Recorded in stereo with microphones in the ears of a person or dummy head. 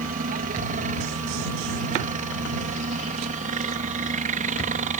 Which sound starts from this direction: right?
A helicopter, at 0.0 s.